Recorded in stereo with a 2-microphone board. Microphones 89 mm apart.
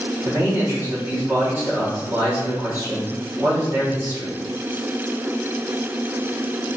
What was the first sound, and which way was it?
A man speaking, 25° right (ahead or behind).